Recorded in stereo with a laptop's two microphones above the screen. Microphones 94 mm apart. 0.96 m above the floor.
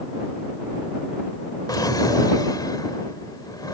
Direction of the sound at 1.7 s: 40° left (ahead or behind).